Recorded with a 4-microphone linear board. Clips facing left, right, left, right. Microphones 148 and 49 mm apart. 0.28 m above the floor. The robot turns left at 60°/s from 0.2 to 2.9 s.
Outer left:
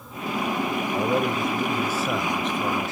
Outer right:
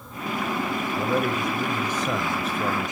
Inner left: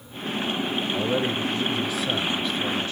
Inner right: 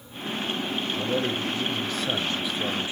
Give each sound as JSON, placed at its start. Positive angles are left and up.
{"t": 0.9, "sound": "a man speaking", "side_deg": 30, "distance_m": 1.0}